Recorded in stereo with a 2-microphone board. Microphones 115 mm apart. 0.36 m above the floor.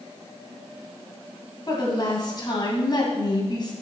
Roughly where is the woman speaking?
Left.